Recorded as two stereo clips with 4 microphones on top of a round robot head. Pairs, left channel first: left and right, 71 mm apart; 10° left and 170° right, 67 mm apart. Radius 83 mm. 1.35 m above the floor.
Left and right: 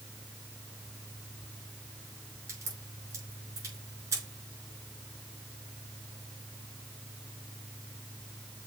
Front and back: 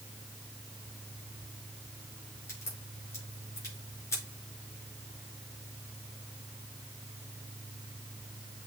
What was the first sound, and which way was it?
A crack, 45° right.